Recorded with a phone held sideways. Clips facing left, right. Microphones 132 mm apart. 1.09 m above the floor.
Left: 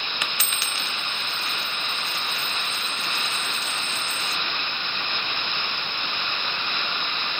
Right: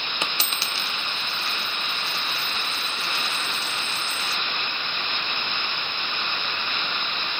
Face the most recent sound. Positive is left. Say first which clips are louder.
# right 4 dB
turn(degrees=-30)  # may be behind; listen again after turning